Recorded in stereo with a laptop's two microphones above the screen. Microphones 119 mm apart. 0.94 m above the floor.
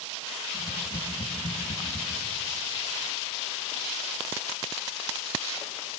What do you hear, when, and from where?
0.5 s tapping: 85° left, 4.5 m